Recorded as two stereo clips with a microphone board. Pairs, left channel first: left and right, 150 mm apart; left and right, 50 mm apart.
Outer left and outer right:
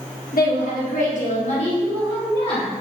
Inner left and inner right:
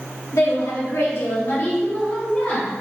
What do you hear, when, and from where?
0.3 s a woman speaking: 75° left (ahead or behind), 1.2 m; by 2.7 s 35° left (ahead or behind), 2.0 m